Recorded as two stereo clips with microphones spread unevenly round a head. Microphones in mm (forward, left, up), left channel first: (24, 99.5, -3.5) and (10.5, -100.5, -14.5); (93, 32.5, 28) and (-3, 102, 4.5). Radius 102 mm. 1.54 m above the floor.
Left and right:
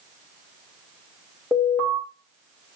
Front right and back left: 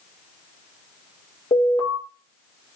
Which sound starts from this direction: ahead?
An alarm, at 1.5 s.